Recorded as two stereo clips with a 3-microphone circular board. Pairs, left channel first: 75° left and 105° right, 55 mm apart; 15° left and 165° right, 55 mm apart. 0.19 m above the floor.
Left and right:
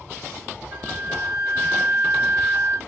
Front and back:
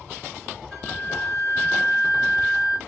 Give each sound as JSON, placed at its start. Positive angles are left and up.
{"t": 0.7, "sound": "a flute", "azimuth_deg": -80, "distance_m": 1.9}